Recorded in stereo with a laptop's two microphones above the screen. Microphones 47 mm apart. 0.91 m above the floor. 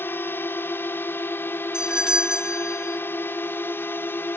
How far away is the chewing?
No chewing in this recording.